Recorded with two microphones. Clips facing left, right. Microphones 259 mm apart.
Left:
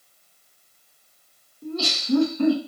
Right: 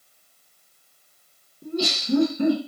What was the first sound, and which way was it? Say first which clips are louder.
Laughter: right 2 dB; 15° right (ahead or behind).